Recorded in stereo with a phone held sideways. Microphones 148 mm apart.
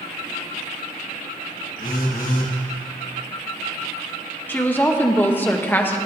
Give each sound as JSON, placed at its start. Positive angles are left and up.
{"t": 1.8, "sound": "a phone buzzing", "side_deg": 70, "distance_m": 1.3}
{"t": 4.5, "sound": "a woman speaking", "side_deg": 15, "distance_m": 0.8}